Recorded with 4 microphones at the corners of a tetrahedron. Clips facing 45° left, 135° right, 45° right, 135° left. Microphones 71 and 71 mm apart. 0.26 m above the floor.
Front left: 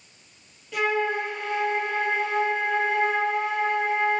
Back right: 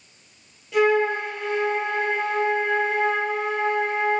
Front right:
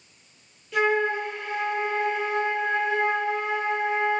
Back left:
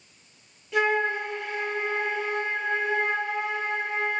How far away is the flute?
About 1.4 m.